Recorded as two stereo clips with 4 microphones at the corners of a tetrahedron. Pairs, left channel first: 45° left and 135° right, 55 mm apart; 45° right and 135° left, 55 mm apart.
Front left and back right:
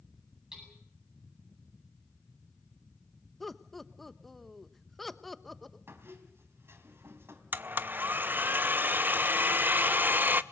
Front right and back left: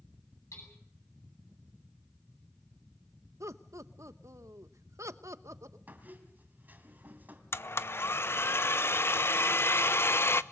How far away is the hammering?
About 9.5 m.